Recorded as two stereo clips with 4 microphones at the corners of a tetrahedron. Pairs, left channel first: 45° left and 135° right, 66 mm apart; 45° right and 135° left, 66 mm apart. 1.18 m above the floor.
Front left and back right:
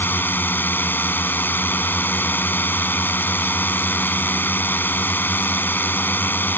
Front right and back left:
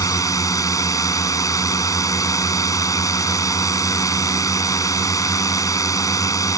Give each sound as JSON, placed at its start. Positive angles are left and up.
{"t": 0.0, "sound": "a drone", "azimuth_deg": -15}